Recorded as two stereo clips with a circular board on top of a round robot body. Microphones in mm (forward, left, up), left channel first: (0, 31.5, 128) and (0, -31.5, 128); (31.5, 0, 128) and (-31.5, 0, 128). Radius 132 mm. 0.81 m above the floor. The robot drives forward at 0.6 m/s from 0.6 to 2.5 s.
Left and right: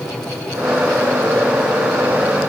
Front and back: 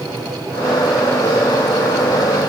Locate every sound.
Only background noise.